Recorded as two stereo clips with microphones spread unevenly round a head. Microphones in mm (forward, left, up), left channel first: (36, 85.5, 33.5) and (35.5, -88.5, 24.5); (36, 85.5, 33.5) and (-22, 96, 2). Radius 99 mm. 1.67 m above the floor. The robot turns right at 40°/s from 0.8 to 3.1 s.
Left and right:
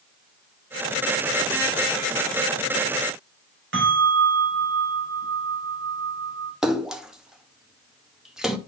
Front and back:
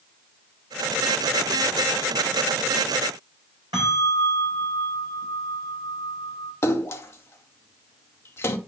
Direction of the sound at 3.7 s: 125° right.